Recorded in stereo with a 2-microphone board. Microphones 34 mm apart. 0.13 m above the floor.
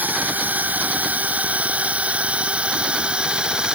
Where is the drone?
55° right (ahead or behind); by 3.8 s 25° right (ahead or behind).